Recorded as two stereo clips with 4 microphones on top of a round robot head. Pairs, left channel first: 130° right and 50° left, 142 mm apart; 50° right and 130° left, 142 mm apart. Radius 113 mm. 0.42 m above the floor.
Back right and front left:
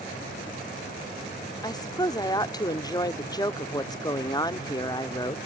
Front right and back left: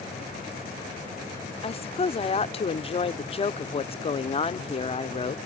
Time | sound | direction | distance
1.6 | a woman speaking | 75° right | ?